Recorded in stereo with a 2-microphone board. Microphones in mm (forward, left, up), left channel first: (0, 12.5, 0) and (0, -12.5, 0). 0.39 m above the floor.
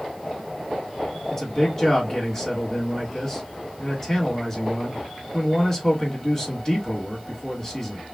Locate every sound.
1.3 s a man speaking: 20° left (ahead or behind), 1.5 m